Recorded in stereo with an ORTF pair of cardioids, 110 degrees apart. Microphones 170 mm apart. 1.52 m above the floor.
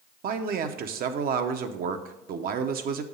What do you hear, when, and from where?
0.2 s a man speaking: 60° right, 0.8 m